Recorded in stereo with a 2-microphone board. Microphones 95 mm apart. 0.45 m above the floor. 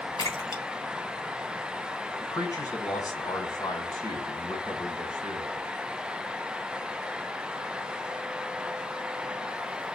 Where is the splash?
55° left (ahead or behind), 2.0 m.